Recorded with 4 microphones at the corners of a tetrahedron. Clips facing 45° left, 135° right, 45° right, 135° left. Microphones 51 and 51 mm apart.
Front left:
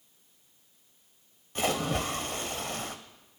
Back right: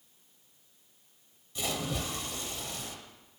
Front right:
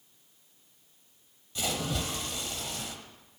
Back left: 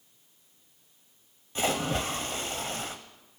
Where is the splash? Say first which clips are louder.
Front left 6 dB, back left 5 dB; 85° left, 0.6 m.